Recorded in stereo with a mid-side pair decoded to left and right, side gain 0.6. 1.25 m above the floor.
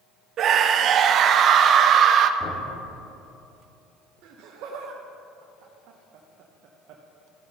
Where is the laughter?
65° right, 0.8 m.